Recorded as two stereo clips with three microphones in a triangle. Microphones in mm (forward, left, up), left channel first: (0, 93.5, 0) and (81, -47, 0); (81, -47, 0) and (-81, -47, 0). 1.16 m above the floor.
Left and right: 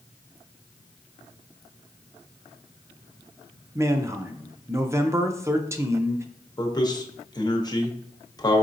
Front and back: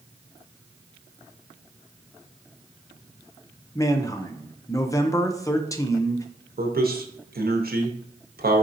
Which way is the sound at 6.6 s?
175° right.